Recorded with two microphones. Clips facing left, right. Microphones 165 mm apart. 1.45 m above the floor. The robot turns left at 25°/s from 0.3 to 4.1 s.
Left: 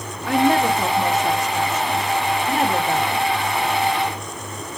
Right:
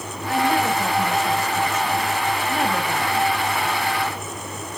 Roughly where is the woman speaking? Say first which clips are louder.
Left 4 dB; left.